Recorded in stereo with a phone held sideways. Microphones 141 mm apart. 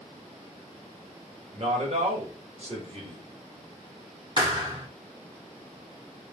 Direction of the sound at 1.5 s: 50° right (ahead or behind).